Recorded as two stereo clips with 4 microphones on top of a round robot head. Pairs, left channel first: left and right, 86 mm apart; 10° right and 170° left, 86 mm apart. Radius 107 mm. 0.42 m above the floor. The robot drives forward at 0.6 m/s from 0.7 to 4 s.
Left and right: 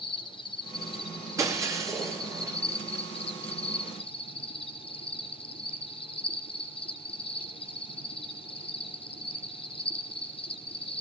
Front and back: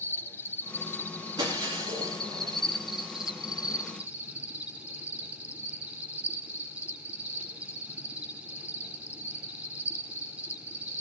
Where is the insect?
55° left, 3 m; by 11.0 s 100° left, 2.5 m.